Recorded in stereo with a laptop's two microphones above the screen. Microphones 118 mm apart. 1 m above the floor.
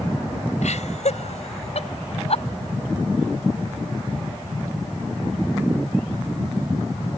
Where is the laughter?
75° left (ahead or behind); by 2.4 s 60° left (ahead or behind).